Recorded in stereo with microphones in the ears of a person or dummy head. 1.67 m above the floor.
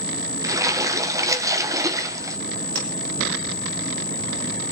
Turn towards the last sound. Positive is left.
turn(degrees=-80)